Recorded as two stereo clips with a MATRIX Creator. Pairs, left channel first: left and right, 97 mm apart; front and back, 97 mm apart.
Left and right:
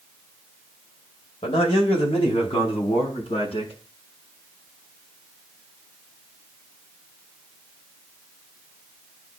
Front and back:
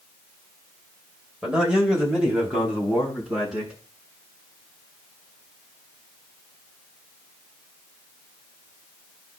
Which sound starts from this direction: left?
A man speaking, at 1.4 s.